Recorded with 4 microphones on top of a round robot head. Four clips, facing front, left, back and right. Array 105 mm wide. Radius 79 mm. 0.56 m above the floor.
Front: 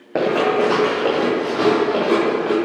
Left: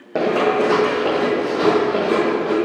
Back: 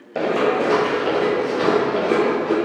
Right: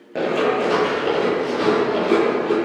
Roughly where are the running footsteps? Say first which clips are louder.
Left 2 dB, front 2 dB; ahead left.